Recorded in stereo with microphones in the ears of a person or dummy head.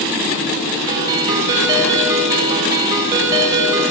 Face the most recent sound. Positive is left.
turn(degrees=-15)  # may be behind; listen again after turning